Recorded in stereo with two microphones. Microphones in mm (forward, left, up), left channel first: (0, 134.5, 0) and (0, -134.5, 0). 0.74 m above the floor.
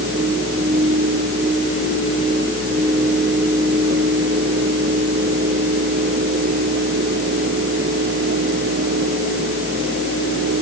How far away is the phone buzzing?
I don't hear a phone buzzing.